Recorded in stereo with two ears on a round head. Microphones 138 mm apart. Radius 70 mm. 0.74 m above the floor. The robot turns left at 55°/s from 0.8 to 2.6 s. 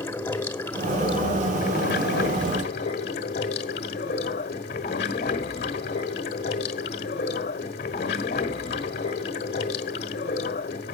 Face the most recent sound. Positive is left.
turn(degrees=65)